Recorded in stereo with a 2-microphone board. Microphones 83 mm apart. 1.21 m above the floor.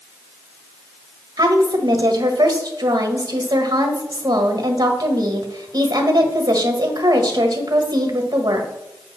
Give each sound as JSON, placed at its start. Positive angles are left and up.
{"t": 1.4, "sound": "a woman speaking", "side_deg": -50, "distance_m": 1.4}